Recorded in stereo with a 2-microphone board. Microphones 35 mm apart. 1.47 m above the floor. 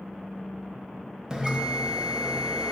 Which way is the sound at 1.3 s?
20° right (ahead or behind).